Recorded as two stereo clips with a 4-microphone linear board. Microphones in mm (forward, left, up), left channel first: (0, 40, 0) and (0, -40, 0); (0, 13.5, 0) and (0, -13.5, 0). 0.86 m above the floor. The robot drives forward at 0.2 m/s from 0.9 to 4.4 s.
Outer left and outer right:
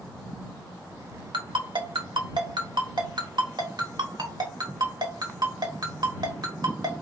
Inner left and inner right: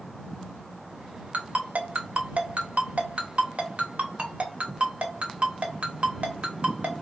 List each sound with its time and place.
1.3 s a ringtone: 85° right, 1.2 m; by 7.0 s 60° right (ahead or behind), 1.4 m